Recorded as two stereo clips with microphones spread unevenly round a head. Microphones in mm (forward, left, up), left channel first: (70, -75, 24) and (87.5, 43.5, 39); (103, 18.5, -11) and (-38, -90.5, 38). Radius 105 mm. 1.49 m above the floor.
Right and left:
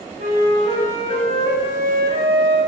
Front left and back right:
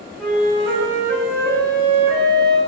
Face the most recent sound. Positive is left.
turn(degrees=130)